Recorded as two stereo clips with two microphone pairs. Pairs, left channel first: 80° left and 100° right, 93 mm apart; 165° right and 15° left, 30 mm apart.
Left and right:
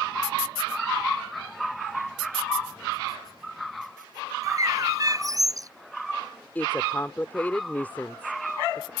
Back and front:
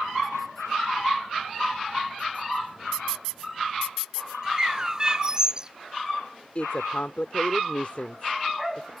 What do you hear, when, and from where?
4.4 s a bird: 50° right
6.5 s a woman speaking: 150° left